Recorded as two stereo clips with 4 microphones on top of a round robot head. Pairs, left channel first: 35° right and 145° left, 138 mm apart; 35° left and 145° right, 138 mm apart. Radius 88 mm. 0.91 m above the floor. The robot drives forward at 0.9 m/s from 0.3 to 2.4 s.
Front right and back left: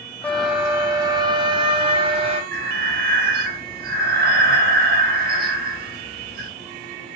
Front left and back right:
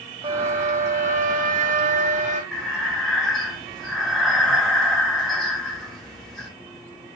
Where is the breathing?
125° left, 3 m.